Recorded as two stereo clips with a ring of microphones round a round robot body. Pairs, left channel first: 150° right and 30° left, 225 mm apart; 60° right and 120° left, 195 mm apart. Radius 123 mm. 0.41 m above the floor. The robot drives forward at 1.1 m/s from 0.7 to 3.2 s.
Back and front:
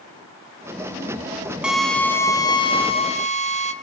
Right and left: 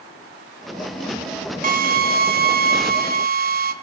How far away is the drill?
About 1.9 m.